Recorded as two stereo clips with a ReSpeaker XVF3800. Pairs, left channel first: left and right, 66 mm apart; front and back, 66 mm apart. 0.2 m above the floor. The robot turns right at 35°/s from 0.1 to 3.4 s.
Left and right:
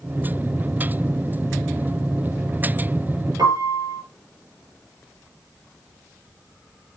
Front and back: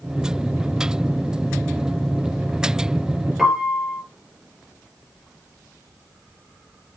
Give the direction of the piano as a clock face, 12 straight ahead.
3 o'clock.